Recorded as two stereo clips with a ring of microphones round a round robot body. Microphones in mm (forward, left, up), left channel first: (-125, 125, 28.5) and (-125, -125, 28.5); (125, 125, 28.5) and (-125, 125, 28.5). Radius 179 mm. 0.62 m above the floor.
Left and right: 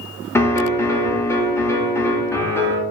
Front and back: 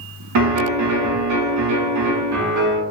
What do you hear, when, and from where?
0.3 s a piano: 170° left, 0.7 m